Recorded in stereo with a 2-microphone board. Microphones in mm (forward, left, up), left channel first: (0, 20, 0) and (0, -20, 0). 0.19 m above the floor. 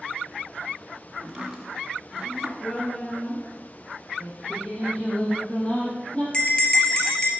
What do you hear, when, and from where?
1.2 s chopping: 15° right (ahead or behind), 2.0 m
2.6 s a woman speaking: 40° left (ahead or behind), 4 m
4.2 s singing: 30° left (ahead or behind), 4 m
6.3 s a bell: 20° left (ahead or behind), 1.9 m